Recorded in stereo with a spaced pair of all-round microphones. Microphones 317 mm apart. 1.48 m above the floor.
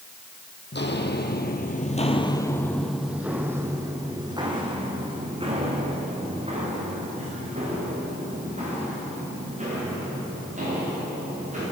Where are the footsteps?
35° left (ahead or behind), 2 m; by 11.6 s 25° right (ahead or behind), 12 m.